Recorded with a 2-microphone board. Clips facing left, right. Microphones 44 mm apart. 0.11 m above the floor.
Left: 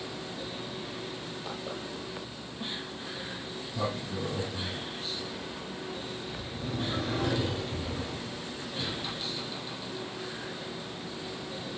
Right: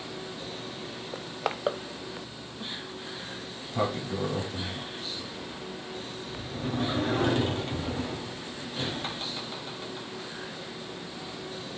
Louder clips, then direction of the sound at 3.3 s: Even; 50° right (ahead or behind).